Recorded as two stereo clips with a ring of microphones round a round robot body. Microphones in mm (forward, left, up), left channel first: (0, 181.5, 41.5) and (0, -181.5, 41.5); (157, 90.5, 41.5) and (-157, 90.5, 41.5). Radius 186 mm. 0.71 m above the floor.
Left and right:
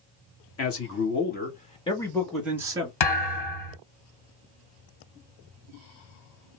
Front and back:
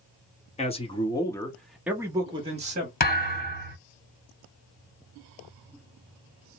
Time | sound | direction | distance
0.6 | a man speaking | 60° left | 1.4 m
3.0 | a thud | 60° left | 1.9 m